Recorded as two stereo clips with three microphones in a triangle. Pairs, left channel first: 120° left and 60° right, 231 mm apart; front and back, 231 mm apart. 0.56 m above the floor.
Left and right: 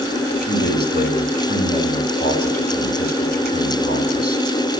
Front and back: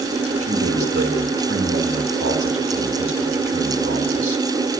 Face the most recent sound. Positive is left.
turn(degrees=165)